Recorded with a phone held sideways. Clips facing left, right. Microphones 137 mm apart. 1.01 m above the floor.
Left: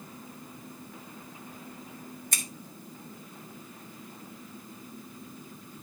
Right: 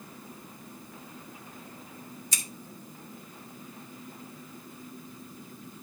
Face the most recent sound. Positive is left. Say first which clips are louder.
# left 3 dB
turn(degrees=60)  # may be behind; listen again after turning